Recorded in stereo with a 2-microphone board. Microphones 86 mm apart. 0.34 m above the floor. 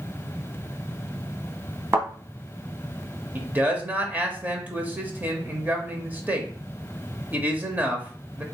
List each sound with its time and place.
1.9 s a thud: 30° right (ahead or behind), 1.3 m
3.4 s a man speaking: 20° right (ahead or behind), 0.9 m